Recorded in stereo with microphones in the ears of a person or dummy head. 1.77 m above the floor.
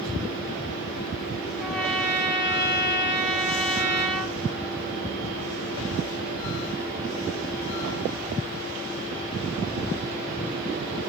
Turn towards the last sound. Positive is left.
turn(degrees=5)  # may be behind; listen again after turning